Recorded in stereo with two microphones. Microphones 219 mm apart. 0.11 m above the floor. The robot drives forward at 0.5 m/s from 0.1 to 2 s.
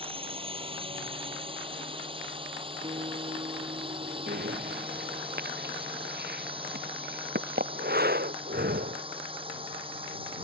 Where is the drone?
25° right (ahead or behind).